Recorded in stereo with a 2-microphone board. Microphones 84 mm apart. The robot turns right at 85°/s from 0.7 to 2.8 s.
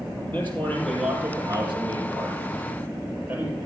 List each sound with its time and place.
0.3 s a man speaking: 160° left, 6 m; by 3.5 s 25° right, 6 m